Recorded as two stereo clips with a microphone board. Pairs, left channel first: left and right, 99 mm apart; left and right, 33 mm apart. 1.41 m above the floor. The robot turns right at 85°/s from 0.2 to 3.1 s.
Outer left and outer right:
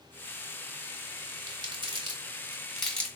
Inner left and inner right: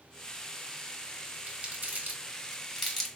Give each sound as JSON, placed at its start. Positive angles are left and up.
{"t": 1.5, "sound": "crumpling", "side_deg": -45, "distance_m": 1.1}